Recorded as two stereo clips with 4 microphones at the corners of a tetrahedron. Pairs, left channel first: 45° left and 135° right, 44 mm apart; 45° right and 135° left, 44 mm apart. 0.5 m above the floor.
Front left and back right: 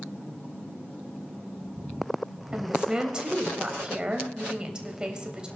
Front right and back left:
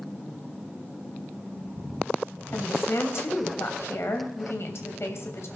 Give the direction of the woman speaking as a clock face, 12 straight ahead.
2 o'clock.